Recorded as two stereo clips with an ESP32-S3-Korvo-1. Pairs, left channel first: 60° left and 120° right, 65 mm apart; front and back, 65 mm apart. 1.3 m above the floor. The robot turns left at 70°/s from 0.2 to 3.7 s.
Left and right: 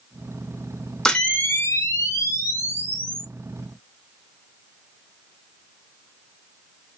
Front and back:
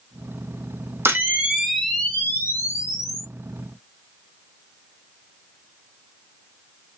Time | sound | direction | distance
1.1 | a camera shutter | 135° left | 0.8 m